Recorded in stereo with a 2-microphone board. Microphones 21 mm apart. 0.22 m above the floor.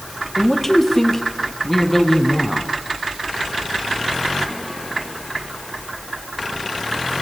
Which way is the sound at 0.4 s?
10° left (ahead or behind).